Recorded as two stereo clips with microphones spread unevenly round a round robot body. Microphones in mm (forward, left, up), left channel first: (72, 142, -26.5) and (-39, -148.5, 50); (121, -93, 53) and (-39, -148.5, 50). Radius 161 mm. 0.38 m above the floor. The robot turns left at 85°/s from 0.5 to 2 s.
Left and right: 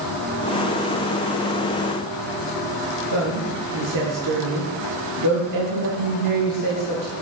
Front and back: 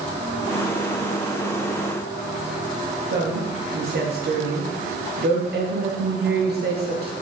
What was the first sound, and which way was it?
A woman speaking, 145° right.